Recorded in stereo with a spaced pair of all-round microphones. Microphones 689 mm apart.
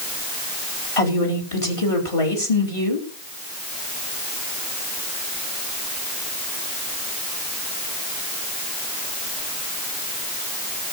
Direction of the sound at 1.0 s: 50° left (ahead or behind).